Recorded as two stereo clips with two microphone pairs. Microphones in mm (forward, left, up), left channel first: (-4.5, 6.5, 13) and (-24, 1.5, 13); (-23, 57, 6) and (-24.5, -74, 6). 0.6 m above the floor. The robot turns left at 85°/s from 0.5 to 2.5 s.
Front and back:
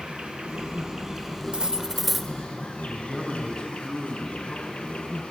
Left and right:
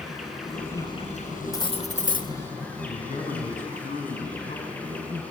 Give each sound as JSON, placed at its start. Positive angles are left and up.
{"t": 0.0, "sound": "an insect", "azimuth_deg": 180, "distance_m": 4.5}
{"t": 1.5, "sound": "cutlery clinking", "azimuth_deg": 155, "distance_m": 1.0}
{"t": 2.8, "sound": "a man speaking", "azimuth_deg": 60, "distance_m": 6.0}